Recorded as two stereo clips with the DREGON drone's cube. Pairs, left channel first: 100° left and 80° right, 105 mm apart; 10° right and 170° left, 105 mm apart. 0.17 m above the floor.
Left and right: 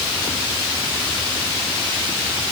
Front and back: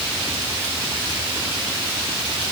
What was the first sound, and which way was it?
Only background noise.